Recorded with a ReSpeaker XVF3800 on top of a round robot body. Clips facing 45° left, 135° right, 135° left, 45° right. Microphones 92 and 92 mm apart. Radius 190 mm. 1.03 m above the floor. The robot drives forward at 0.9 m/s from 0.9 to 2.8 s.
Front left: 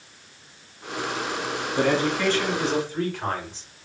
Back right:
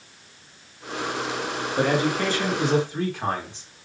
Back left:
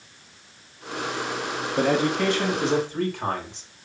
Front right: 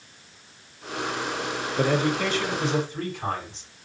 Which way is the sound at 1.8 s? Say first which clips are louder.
Even, back left 2 dB; 145° left.